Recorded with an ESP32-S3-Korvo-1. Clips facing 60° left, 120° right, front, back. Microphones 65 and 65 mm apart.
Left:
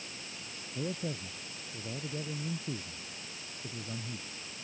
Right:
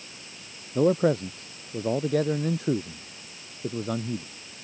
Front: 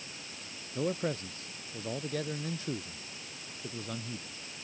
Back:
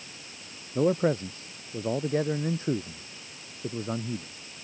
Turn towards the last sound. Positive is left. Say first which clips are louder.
# right 16 dB, back 9 dB
turn(degrees=-120)